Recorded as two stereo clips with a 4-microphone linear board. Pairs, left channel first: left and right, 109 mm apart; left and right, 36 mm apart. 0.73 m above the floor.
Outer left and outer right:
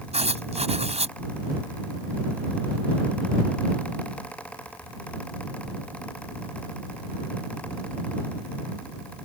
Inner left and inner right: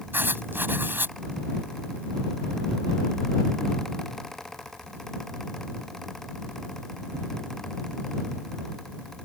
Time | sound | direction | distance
0.1 | writing | 80° right | ?